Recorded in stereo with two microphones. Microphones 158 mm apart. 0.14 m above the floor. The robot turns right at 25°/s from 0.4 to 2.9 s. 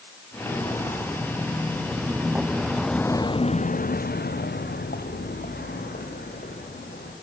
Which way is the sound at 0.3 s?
20° left (ahead or behind).